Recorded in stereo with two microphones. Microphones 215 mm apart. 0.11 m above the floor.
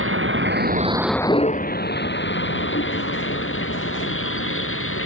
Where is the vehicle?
75° right (ahead or behind); by 5.0 s 70° left (ahead or behind).